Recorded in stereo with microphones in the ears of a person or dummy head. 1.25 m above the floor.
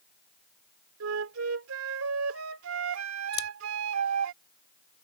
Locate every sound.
1.0 s a flute: 80° right
3.3 s scissors: 30° left (ahead or behind)